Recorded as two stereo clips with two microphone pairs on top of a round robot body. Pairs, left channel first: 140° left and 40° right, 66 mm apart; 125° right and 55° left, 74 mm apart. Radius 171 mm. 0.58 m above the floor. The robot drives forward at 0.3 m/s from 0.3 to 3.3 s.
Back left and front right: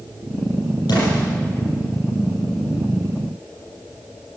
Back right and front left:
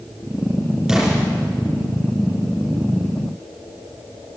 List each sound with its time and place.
0.9 s an explosion: 140° left, 6.5 m